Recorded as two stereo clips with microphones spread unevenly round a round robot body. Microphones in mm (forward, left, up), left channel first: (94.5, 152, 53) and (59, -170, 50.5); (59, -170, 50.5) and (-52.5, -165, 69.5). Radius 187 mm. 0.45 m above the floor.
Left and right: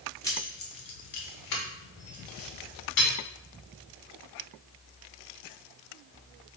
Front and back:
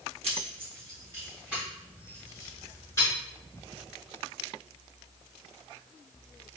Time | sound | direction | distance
0.2 | keys jangling | 165° left | 0.6 m